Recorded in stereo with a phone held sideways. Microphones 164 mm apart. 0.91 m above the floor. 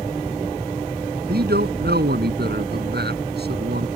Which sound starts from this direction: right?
A man speaking, at 1.3 s.